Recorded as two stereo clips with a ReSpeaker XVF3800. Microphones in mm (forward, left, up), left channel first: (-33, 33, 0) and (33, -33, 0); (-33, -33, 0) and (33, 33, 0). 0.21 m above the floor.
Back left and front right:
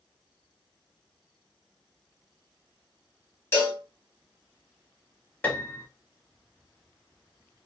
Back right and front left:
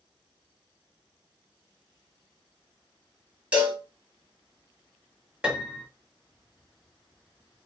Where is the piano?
100° left, 0.6 m.